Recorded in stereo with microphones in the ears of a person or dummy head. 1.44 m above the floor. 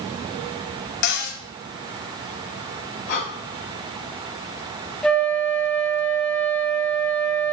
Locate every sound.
1.0 s a cupboard door: 60° left (ahead or behind), 0.9 m
3.1 s breathing: 55° left (ahead or behind), 2.5 m
5.0 s a flute: 5° left (ahead or behind), 1.0 m